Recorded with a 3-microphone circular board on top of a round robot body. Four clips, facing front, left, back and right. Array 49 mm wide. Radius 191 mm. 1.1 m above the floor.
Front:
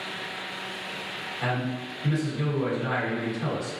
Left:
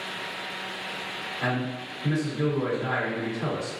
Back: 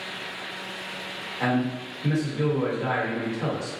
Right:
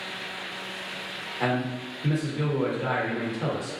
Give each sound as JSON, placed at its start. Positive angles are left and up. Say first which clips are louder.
{"t": 1.4, "sound": "a man speaking", "louder": "right 2 dB, back 5 dB", "azimuth_deg": -130, "distance_m": 1.2}